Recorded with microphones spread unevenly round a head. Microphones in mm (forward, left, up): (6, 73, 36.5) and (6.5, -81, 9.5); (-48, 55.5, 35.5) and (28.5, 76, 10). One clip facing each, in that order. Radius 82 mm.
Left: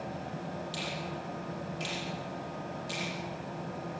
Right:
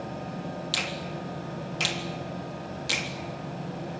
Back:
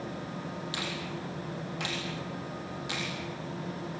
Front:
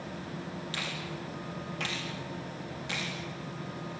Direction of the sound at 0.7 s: 85° right.